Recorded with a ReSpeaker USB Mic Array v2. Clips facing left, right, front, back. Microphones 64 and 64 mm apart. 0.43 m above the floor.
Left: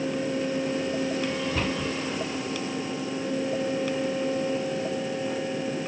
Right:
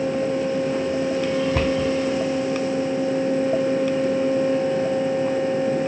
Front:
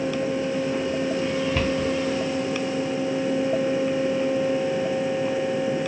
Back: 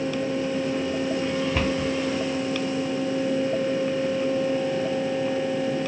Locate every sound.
1.5 s a cupboard door: 100° right, 0.9 m